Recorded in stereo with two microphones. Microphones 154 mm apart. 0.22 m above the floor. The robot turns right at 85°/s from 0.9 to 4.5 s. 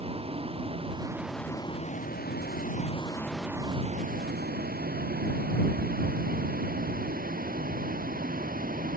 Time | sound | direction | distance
0.0 | a vehicle | 40° right (ahead or behind) | ?